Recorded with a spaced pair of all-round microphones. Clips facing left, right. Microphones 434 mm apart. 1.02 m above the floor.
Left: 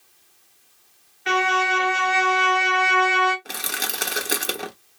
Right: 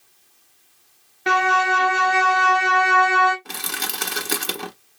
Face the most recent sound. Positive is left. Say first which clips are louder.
# even
turn(degrees=-15)  # may be behind; listen again after turning